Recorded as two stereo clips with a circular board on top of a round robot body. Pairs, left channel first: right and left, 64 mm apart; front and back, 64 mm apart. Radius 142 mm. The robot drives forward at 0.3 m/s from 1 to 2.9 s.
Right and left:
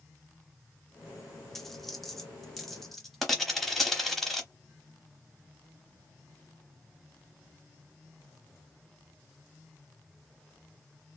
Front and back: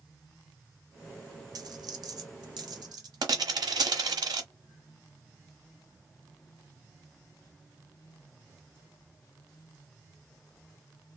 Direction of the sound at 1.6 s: 175° right.